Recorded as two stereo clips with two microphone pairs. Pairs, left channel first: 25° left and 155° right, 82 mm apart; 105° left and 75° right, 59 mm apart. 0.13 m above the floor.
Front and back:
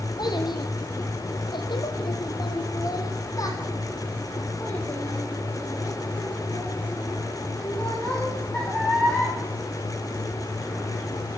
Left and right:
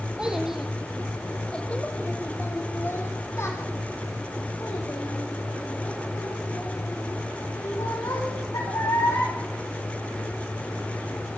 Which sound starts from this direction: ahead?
A child speaking, at 0.2 s.